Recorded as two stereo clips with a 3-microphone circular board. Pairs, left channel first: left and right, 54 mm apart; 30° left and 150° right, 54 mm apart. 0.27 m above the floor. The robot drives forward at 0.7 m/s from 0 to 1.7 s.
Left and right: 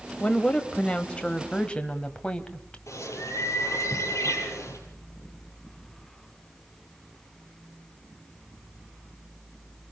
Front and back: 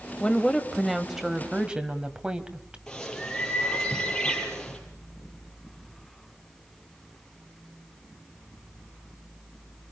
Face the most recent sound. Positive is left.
turn(degrees=110)